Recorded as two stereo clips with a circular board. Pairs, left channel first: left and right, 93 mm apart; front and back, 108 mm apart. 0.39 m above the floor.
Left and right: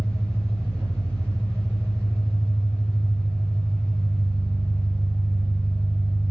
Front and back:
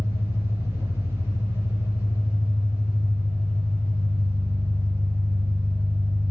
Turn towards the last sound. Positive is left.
turn(degrees=-145)